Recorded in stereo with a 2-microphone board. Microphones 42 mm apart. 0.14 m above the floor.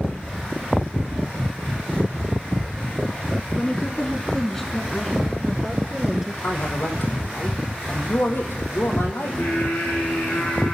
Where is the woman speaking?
25° left (ahead or behind), 1.7 m; by 6.3 s 15° right (ahead or behind), 2 m.